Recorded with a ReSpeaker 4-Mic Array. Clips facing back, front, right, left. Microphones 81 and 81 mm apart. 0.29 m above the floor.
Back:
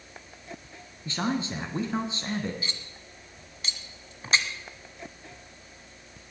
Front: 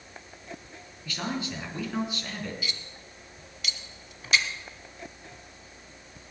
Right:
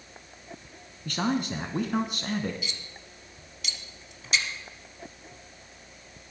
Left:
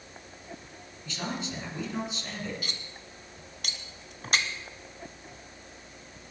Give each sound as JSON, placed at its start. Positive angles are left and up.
{"t": 1.1, "sound": "a man speaking", "azimuth_deg": -120, "distance_m": 3.0}
{"t": 2.6, "sound": "cutlery clinking", "azimuth_deg": 125, "distance_m": 1.5}